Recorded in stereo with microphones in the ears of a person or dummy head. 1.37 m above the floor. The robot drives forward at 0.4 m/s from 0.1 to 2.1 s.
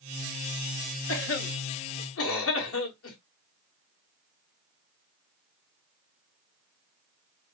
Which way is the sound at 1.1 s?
70° left (ahead or behind).